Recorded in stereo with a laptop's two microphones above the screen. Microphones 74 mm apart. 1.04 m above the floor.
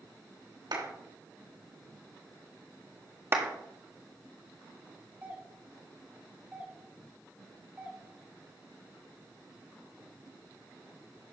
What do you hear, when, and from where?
0.7 s a clap: 80° right, 3 m
3.3 s a clap: 35° right (ahead or behind), 1.8 m
5.2 s a doorbell: 20° right (ahead or behind), 1.2 m